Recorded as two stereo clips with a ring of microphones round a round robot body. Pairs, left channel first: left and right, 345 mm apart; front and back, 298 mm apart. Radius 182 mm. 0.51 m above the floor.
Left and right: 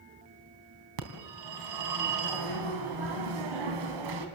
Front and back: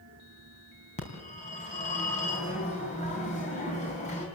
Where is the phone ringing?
70° right, 3.5 m.